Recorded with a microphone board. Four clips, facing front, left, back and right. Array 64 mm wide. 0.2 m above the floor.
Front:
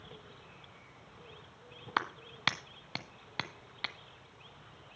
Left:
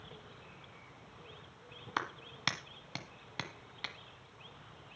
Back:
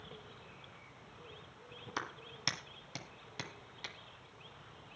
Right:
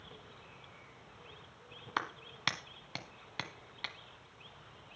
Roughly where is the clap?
Ahead.